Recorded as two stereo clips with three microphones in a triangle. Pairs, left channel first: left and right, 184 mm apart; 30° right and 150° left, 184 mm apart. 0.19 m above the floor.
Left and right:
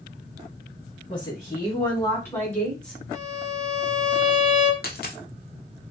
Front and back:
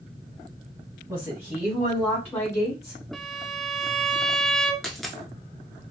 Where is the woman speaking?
100° left, 1.6 m; by 3.0 s 10° left, 1.8 m.